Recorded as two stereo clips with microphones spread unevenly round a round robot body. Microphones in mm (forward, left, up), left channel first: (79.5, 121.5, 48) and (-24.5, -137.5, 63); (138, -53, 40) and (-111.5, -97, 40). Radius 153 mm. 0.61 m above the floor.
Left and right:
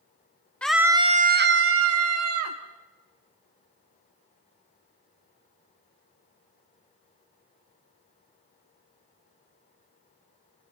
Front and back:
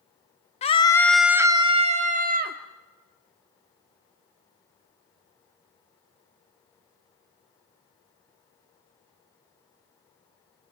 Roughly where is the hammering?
I don't hear hammering.